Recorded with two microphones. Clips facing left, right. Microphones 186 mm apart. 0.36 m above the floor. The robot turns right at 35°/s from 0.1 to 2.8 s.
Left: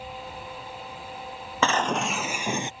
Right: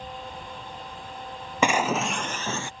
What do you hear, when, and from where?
1.6 s breaking glass: 15° right; by 2.7 s 20° left